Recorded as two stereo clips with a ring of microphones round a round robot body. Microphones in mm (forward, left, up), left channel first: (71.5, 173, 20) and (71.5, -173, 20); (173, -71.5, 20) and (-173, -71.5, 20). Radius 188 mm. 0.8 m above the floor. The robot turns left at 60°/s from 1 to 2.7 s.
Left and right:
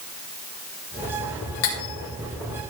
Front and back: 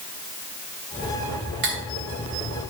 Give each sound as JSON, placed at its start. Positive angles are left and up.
{"t": 1.6, "sound": "cutlery clinking", "azimuth_deg": 115, "distance_m": 3.0}